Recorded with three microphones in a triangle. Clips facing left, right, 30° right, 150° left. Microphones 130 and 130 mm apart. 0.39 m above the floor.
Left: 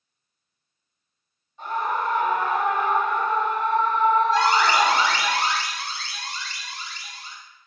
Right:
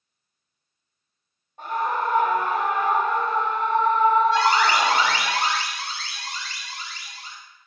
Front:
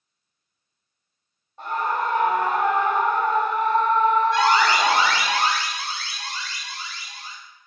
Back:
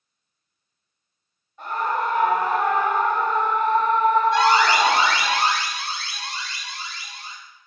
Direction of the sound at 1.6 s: 80° right.